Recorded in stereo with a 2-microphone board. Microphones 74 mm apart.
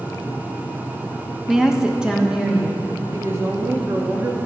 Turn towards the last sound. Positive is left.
turn(degrees=-35)  # may be behind; listen again after turning